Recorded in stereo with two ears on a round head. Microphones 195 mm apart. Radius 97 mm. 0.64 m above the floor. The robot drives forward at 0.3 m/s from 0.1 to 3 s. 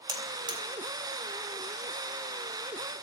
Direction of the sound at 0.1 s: 20° right (ahead or behind).